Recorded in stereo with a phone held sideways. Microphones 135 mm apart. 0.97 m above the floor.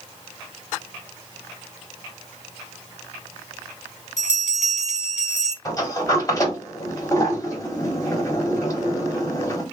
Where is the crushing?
I don't hear crushing.